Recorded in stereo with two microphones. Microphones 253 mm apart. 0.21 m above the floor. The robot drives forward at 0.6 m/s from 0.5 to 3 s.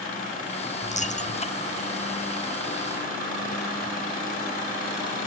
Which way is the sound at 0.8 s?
30° left (ahead or behind).